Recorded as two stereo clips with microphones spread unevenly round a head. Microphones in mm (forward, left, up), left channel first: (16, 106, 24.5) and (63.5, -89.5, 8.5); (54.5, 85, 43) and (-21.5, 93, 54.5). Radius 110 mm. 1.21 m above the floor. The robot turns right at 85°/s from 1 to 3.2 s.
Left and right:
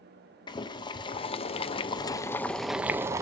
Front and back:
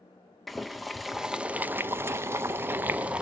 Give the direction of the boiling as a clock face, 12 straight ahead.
10 o'clock.